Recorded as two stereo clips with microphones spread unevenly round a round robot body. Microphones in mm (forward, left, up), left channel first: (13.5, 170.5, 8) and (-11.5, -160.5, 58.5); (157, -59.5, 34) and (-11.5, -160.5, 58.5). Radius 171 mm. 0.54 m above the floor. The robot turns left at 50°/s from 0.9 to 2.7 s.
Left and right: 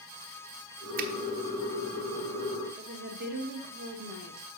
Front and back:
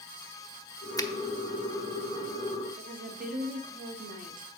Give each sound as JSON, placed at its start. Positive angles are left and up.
{"t": 1.0, "sound": "a finger snap", "azimuth_deg": -30, "distance_m": 0.9}
{"t": 2.8, "sound": "a woman speaking", "azimuth_deg": -145, "distance_m": 1.0}